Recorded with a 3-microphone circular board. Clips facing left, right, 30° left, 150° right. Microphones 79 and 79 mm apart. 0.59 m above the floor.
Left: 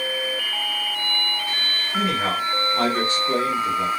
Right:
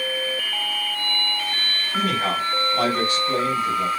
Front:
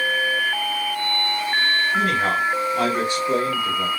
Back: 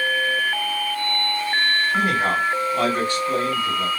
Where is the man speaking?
145° left, 1.4 m; by 3.9 s 45° left, 1.3 m.